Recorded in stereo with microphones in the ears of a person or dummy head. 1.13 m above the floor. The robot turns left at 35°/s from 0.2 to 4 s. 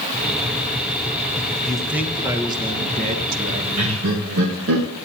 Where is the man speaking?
10° left, 1.4 m; by 4.6 s 75° right, 1.4 m.